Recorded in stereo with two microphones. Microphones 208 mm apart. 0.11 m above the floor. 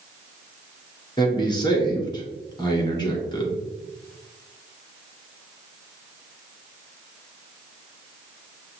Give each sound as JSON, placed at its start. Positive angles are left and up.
{"t": 1.2, "sound": "a man speaking", "side_deg": 20, "distance_m": 1.5}